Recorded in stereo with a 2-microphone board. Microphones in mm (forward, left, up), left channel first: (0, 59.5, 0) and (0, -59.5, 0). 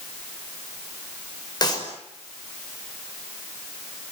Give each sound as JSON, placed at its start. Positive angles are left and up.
{"t": 1.6, "sound": "a clap", "side_deg": 35, "distance_m": 5.0}